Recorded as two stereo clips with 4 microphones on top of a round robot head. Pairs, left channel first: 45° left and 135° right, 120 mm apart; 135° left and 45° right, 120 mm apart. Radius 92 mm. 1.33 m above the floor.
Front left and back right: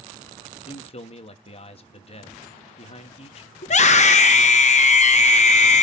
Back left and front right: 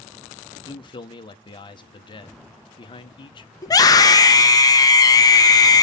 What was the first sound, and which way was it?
A man speaking, 85° left.